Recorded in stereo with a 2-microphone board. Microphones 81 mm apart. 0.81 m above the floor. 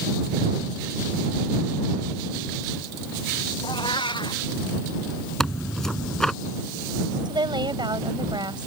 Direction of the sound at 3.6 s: 75° left (ahead or behind).